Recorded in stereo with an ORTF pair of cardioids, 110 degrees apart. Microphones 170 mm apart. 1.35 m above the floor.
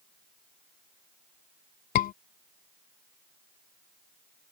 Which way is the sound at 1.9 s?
60° left.